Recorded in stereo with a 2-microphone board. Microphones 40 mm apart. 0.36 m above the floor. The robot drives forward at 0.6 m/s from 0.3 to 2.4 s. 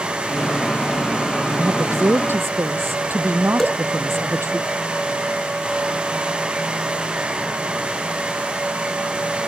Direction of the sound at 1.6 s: 70° right (ahead or behind).